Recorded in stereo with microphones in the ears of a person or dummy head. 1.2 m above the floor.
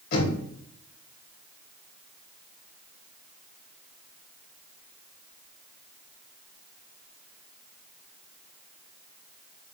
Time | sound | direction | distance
0.1 | knocking | 55° left (ahead or behind) | 3.5 m